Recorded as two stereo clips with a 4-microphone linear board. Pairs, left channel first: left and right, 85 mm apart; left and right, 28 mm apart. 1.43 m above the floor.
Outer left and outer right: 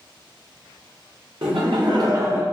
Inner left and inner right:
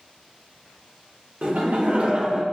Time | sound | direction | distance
1.4 | laughter | 80° right | 0.8 m